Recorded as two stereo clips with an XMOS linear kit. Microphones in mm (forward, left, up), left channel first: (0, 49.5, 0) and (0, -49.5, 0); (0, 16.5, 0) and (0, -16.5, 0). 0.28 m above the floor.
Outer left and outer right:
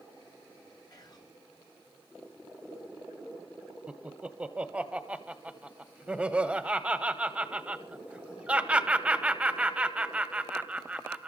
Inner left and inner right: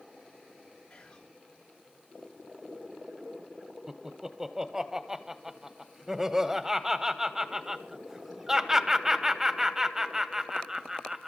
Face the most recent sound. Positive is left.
turn(degrees=-10)  # may be behind; listen again after turning